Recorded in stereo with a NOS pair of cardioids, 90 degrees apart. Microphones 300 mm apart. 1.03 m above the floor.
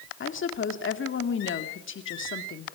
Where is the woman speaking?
45° left, 2 m.